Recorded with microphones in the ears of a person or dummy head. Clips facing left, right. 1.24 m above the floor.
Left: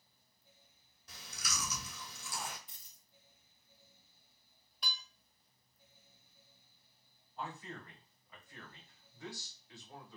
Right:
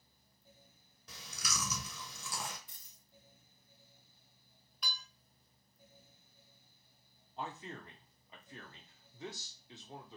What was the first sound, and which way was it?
Chewing, 60° right (ahead or behind).